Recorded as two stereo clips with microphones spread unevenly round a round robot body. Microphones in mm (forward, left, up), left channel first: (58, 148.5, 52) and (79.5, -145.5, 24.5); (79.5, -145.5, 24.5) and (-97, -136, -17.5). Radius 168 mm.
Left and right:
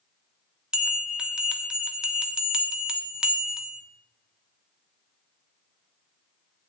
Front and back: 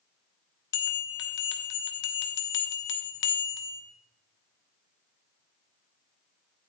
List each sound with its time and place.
0.7 s a bell: straight ahead, 1.4 m